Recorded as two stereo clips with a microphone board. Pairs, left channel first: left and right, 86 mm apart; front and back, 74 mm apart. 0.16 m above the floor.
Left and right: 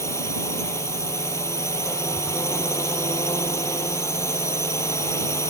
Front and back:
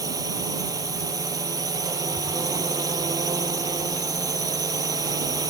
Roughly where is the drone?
Behind left.